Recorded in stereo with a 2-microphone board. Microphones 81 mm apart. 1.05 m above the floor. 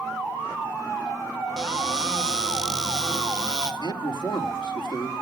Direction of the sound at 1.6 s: 10° right (ahead or behind).